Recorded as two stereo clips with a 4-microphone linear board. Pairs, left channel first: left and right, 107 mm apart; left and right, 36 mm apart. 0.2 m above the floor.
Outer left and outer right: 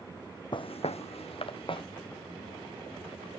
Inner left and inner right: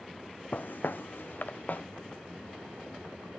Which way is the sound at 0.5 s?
50° left (ahead or behind).